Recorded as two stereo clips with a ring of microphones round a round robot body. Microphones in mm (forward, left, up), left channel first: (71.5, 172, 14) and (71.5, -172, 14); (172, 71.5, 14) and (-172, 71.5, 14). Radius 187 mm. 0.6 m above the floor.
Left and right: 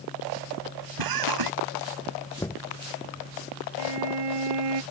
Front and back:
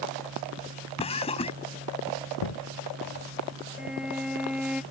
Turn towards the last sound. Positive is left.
turn(degrees=-90)